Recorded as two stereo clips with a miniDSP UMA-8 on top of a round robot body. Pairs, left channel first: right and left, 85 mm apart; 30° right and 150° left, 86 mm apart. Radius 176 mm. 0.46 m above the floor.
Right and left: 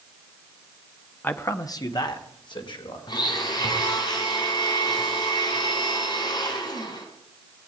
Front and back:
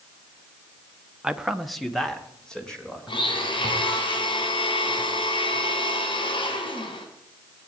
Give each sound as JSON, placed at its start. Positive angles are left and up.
{"t": 1.2, "sound": "a man speaking", "azimuth_deg": -140, "distance_m": 1.0}
{"t": 3.1, "sound": "a blender", "azimuth_deg": -50, "distance_m": 3.0}